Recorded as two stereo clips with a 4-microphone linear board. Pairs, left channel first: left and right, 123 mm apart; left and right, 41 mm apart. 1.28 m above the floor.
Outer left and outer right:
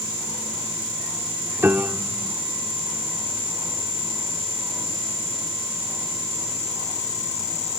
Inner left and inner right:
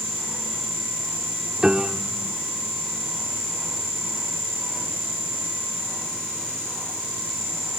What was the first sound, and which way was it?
A piano, 20° right (ahead or behind).